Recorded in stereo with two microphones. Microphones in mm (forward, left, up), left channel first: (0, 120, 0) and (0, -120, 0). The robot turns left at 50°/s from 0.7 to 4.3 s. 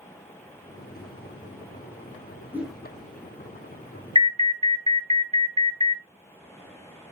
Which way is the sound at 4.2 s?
20° right (ahead or behind).